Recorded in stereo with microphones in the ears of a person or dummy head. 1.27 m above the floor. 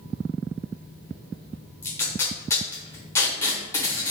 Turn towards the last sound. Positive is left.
turn(degrees=10)  # may be behind; listen again after turning